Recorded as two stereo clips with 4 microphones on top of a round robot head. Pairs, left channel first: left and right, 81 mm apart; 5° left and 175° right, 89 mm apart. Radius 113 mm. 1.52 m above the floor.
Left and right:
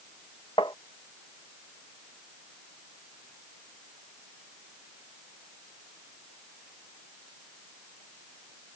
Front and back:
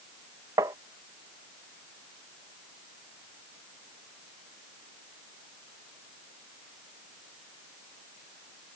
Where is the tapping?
140° left.